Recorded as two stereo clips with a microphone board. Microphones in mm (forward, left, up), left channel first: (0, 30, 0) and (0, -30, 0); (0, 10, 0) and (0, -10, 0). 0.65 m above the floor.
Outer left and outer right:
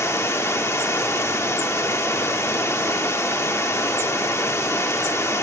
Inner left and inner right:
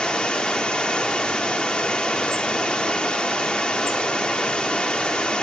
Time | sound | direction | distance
0.0 | running water | 50° left (ahead or behind) | 1.3 m